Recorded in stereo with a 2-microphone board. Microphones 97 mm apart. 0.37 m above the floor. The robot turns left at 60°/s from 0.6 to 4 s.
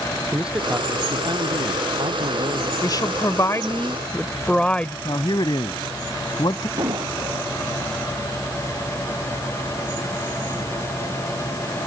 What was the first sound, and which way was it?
A man speaking, 10° right.